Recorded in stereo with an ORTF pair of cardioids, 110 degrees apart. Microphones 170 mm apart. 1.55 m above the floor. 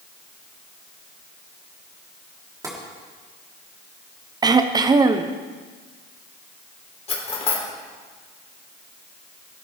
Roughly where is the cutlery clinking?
Ahead left.